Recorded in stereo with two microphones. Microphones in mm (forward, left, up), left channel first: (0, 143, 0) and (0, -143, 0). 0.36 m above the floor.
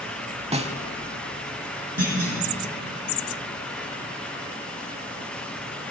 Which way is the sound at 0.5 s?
20° right (ahead or behind).